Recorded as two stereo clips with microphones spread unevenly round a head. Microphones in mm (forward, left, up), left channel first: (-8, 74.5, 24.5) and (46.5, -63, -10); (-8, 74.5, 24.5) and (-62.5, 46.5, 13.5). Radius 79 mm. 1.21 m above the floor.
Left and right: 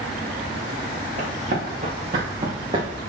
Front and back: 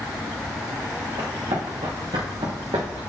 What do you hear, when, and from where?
1.2 s running footsteps: 115° right, 4 m; by 3.0 s 135° right, 3.5 m